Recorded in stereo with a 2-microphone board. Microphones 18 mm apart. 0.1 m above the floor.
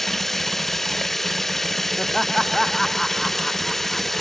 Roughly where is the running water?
Centre.